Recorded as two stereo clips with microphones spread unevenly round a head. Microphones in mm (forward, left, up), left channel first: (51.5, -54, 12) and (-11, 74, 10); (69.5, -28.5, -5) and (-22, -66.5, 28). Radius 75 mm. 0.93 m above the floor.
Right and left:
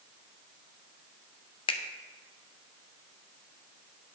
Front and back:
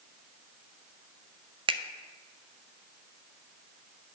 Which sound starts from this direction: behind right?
A finger snap, at 1.7 s.